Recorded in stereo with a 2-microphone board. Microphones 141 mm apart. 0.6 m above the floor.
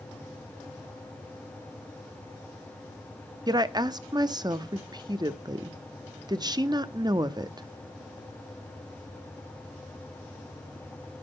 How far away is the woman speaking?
About 0.6 m.